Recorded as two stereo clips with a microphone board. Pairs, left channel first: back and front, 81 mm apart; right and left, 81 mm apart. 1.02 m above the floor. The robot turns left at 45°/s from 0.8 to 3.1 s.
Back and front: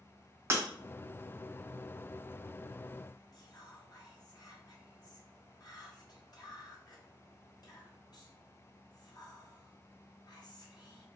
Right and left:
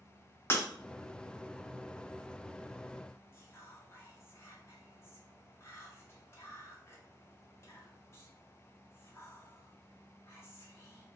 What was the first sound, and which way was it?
Breaking glass, 45° right.